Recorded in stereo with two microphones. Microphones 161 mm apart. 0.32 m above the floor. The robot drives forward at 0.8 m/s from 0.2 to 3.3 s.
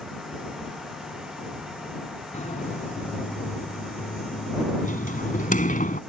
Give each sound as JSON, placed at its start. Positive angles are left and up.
{"t": 2.3, "sound": "a sliding door", "side_deg": 45}